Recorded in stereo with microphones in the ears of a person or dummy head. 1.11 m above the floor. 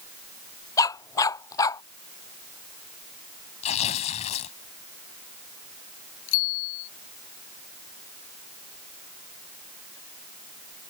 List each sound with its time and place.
0.8 s a dog barking: 20° left (ahead or behind)
3.6 s tearing paper: 40° left (ahead or behind)
6.3 s a bicycle bell: 85° left